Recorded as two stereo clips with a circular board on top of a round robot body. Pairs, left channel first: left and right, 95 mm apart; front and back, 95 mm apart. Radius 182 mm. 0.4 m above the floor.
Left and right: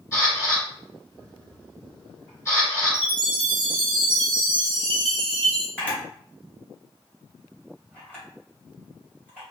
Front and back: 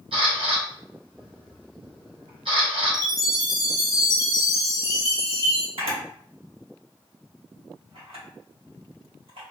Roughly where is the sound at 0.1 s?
Behind left.